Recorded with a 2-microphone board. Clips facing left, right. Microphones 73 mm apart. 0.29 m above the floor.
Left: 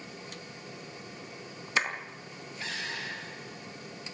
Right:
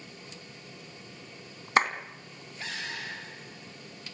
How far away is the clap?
About 2 m.